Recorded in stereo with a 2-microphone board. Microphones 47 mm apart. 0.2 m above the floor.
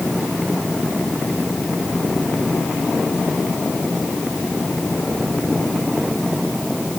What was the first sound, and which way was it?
Only background noise.